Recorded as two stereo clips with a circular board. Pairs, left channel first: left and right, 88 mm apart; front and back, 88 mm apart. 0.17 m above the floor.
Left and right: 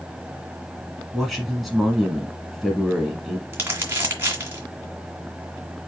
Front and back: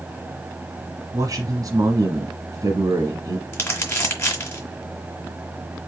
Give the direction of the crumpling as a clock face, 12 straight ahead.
1 o'clock.